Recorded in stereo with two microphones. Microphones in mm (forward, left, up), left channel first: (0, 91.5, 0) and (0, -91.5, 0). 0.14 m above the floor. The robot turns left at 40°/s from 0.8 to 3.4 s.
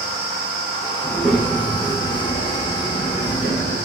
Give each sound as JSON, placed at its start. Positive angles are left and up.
{"t": 1.0, "sound": "a child speaking", "azimuth_deg": -170, "distance_m": 5.0}